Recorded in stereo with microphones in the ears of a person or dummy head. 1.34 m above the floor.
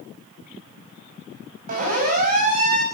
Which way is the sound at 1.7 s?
45° right (ahead or behind).